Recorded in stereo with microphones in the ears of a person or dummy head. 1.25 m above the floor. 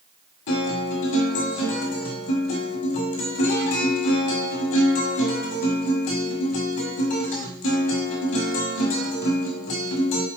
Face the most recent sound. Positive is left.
turn(degrees=35)  # may be behind; listen again after turning